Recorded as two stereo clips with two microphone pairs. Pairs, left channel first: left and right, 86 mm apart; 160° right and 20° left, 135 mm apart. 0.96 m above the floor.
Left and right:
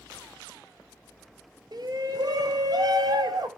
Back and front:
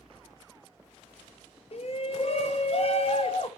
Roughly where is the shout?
Behind right.